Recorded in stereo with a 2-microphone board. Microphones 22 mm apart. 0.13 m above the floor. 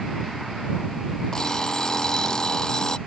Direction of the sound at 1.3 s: 30° left (ahead or behind).